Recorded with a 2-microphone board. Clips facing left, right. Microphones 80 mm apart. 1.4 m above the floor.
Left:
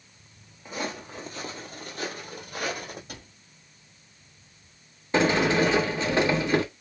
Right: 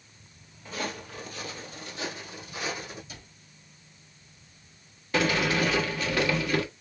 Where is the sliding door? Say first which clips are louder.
Left 4 dB; 25° left (ahead or behind), 0.9 m.